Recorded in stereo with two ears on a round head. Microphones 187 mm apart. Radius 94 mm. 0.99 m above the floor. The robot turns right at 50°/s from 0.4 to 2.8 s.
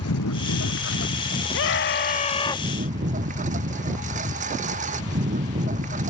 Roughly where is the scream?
Left.